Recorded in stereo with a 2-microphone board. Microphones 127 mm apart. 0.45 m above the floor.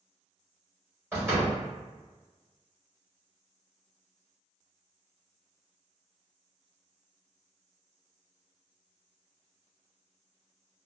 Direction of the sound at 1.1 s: 20° right (ahead or behind).